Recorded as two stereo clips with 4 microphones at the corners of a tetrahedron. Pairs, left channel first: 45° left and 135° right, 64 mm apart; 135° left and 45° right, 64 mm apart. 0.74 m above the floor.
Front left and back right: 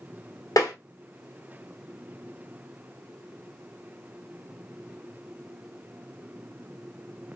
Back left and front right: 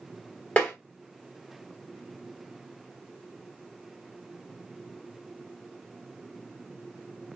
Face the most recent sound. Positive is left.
turn(degrees=65)